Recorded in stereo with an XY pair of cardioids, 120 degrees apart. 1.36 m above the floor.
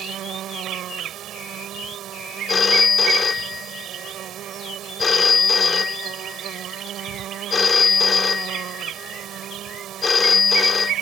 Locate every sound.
0.0 s an insect: 60° right
2.5 s a phone ringing: 30° left